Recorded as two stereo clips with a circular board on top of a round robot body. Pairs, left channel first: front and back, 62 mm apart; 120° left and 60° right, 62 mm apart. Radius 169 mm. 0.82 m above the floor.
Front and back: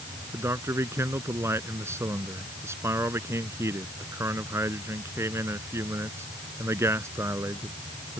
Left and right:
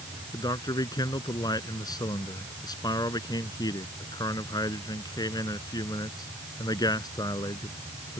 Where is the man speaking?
130° left.